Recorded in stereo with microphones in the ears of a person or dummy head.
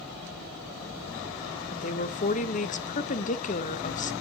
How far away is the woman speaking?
About 0.6 m.